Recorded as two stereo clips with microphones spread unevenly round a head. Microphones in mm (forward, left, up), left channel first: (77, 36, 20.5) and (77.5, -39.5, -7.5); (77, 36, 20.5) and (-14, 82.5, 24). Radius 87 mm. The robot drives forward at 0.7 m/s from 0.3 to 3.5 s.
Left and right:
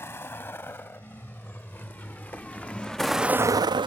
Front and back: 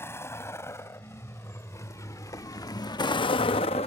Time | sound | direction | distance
0.0 | a vehicle | 40° left | ?